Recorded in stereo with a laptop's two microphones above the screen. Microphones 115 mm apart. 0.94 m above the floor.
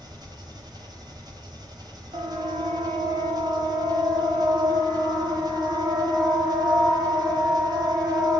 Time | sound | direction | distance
0.0 | an engine running | 40° right (ahead or behind) | 4.5 m
2.1 | a siren | 75° right (ahead or behind) | 3.5 m